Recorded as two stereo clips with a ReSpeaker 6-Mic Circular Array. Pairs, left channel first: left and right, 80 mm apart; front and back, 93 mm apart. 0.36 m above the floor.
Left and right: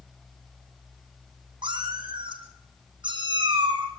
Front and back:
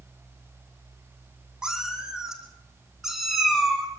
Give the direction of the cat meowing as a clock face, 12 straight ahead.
3 o'clock.